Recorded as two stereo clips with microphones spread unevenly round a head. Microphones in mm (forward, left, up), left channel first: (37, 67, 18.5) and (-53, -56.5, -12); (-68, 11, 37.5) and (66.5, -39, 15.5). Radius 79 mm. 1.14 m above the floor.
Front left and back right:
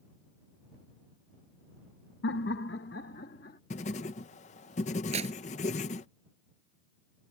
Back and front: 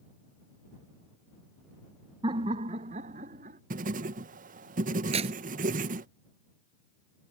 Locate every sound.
2.2 s laughter: 35° left; by 3.6 s 15° left
3.7 s writing: 5° left
5.1 s tearing paper: 70° right